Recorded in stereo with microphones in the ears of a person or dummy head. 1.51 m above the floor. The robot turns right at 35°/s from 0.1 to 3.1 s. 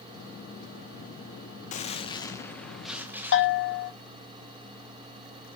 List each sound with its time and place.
1.7 s a gunshot: 145° left, 0.9 m; by 3.9 s 165° right, 0.9 m
3.3 s a bell: 70° left (ahead or behind), 1.3 m